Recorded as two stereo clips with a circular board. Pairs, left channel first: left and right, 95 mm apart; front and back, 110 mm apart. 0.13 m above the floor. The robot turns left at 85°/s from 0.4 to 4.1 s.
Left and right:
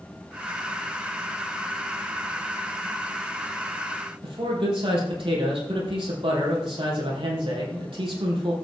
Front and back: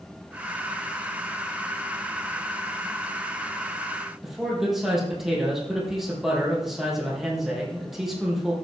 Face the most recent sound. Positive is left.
turn(degrees=-95)